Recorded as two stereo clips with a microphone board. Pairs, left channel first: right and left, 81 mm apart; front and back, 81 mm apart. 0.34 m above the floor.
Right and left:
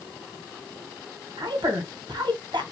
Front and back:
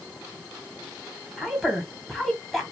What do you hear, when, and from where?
1.4 s a woman speaking: 85° left, 2 m